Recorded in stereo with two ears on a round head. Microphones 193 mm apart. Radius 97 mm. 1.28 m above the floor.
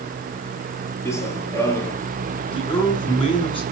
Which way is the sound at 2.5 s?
25° left (ahead or behind).